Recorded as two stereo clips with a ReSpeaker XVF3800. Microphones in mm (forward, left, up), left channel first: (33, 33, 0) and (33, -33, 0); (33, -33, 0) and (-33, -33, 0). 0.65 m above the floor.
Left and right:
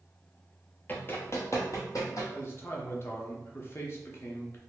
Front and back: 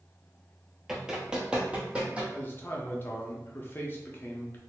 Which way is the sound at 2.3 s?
45° left.